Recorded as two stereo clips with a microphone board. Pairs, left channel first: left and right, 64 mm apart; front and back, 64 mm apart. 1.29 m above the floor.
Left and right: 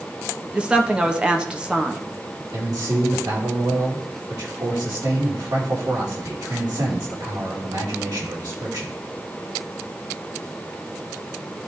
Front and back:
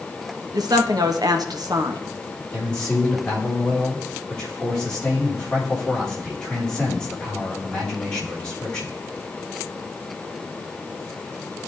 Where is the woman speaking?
165° right, 1.0 m.